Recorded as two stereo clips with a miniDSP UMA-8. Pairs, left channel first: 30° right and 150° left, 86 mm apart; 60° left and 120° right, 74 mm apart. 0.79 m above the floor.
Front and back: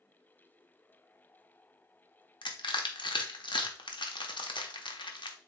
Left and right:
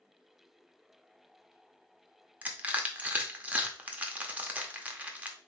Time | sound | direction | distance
2.4 | crushing | 50° right | 0.7 m